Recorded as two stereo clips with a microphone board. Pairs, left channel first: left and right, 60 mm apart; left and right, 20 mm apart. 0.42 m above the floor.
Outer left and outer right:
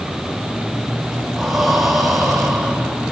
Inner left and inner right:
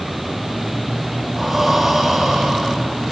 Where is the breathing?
5° right (ahead or behind), 5.5 m.